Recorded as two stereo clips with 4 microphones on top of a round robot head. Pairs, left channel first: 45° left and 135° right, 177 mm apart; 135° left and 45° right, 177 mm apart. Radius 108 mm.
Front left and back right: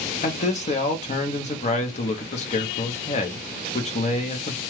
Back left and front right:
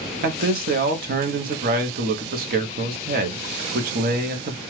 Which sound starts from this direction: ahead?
A man speaking, at 0.2 s.